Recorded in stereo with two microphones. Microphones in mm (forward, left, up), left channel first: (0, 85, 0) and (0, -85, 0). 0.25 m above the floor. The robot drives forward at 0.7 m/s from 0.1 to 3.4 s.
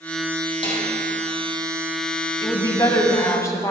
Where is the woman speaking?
25° left (ahead or behind), 1.2 m; by 3.7 s 20° left (ahead or behind), 1.5 m.